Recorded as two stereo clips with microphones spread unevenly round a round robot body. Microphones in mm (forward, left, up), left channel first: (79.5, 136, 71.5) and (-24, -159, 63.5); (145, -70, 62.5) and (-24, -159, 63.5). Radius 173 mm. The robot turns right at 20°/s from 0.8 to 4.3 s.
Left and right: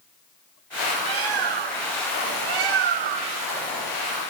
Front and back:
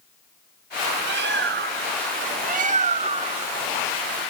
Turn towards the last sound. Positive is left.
turn(degrees=-75)